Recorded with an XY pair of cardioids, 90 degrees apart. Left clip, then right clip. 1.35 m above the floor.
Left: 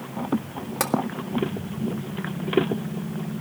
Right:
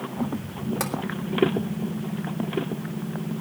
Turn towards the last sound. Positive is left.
turn(degrees=30)